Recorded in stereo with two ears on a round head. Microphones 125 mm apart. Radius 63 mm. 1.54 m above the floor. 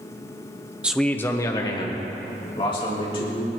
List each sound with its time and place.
0.8 s a man speaking: 10° right (ahead or behind), 0.6 m; by 3.5 s 40° left (ahead or behind), 3.5 m